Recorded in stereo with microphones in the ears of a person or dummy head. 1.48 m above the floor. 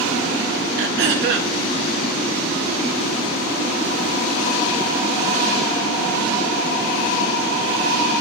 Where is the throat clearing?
60° right (ahead or behind), 0.8 m.